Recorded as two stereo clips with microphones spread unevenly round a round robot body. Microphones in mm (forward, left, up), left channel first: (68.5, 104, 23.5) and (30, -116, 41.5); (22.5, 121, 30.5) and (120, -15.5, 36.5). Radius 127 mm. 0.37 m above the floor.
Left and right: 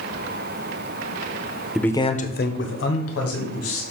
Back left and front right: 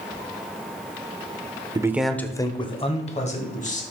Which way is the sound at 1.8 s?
5° right.